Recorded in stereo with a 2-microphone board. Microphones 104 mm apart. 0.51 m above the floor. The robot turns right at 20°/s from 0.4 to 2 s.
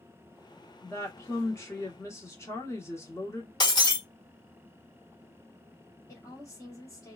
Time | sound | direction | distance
0.8 | a woman speaking | 25° left (ahead or behind) | 1.0 m
3.6 | breaking glass | 40° left (ahead or behind) | 1.0 m
6.1 | a woman speaking | 30° left (ahead or behind) | 1.4 m